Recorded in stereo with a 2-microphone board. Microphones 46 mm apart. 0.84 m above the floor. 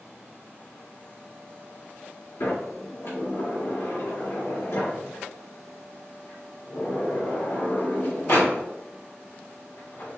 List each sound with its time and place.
2.4 s a sliding door: 65° left (ahead or behind), 2 m